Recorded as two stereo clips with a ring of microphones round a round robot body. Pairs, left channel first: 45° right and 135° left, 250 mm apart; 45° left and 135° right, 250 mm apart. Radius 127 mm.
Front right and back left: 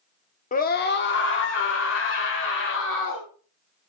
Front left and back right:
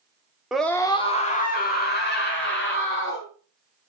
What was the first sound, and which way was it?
A scream, 50° right.